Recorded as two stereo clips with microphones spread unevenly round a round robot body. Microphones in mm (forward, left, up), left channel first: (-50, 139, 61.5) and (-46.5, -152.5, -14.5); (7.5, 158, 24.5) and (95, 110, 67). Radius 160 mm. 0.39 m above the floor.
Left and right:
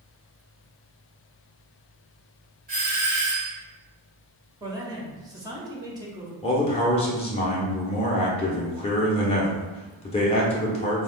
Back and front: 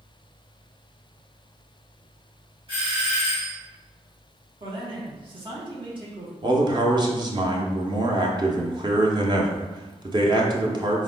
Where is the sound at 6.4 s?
15° left, 0.8 m.